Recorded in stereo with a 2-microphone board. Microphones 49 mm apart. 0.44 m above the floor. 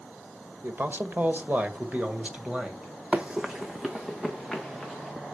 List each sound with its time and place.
0.6 s a man speaking: 50° right (ahead or behind), 1.6 m; by 2.9 s 20° right (ahead or behind), 2 m
3.1 s running footsteps: 25° right (ahead or behind), 0.7 m; by 5.1 s centre (ahead or behind), 3 m